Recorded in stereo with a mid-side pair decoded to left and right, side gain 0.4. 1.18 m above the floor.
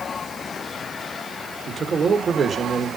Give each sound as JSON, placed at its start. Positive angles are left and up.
{"t": 1.7, "sound": "a man speaking", "azimuth_deg": -40, "distance_m": 4.0}